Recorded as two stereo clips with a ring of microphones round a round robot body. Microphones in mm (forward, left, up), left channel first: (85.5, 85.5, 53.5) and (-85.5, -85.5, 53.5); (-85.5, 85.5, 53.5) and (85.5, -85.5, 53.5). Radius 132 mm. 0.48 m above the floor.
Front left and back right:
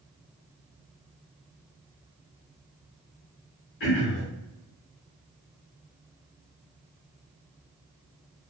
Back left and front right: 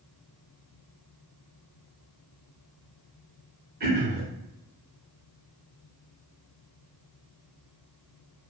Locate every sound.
3.8 s throat clearing: 5° left, 1.2 m